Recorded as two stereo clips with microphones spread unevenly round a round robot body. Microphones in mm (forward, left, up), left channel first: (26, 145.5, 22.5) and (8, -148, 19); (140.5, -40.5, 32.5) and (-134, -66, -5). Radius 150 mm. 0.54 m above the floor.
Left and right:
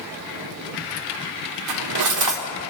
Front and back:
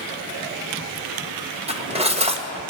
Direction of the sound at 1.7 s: 110° right.